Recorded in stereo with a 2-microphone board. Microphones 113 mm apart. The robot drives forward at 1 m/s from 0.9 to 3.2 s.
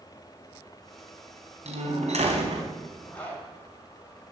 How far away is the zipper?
About 3.5 m.